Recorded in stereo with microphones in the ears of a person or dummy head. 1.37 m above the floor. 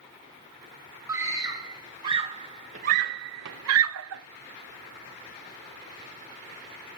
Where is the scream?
20° right (ahead or behind), 2.5 m; by 4.2 s 75° right (ahead or behind), 1.0 m.